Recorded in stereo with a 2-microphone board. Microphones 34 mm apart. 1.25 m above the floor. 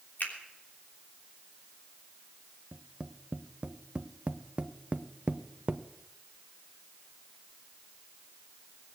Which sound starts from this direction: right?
Tapping, at 2.7 s.